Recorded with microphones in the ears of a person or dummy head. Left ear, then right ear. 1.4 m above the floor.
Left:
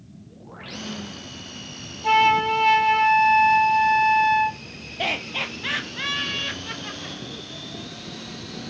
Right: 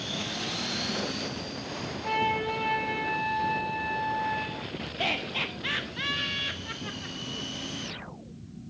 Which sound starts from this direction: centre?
Laughter, at 5.0 s.